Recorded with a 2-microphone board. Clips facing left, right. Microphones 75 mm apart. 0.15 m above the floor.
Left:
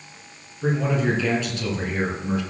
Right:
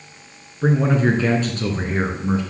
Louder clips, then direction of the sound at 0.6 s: Right 4 dB; 40° right (ahead or behind).